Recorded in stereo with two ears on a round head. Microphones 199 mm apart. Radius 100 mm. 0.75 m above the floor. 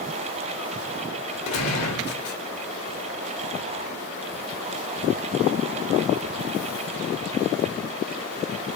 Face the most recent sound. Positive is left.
turn(degrees=80)